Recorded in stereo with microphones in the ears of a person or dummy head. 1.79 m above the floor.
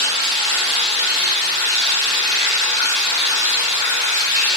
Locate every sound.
0.0 s running water: 20° left (ahead or behind), 1.7 m